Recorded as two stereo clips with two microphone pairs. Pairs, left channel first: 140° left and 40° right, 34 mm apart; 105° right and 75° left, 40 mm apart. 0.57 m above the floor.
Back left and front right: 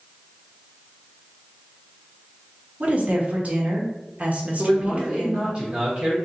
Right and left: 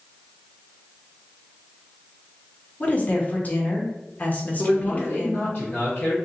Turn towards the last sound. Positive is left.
turn(degrees=-85)